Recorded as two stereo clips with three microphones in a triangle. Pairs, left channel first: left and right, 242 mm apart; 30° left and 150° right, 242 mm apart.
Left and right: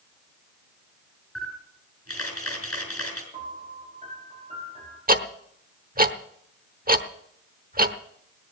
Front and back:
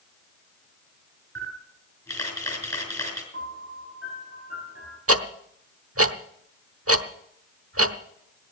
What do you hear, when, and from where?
1.4 s a camera shutter: 110° left, 5 m
3.3 s a piano: 155° right, 5 m
5.1 s ticking: 145° right, 1.0 m